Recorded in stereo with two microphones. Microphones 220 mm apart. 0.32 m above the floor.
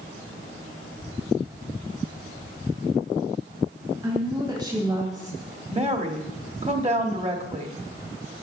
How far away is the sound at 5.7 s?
About 1.4 m.